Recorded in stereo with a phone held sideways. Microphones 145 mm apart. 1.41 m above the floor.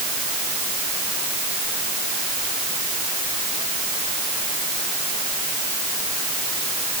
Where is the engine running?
I don't hear an engine running.